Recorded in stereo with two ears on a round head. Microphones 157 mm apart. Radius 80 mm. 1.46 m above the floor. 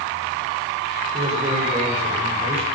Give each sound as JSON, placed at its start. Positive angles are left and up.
{"t": 1.1, "sound": "a man speaking", "side_deg": -40, "distance_m": 5.0}